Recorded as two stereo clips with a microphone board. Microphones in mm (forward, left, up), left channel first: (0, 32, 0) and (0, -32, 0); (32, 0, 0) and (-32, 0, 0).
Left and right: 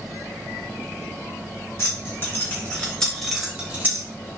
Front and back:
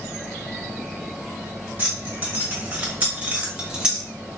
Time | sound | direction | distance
1.8 | keys jangling | 120° left | 1.6 m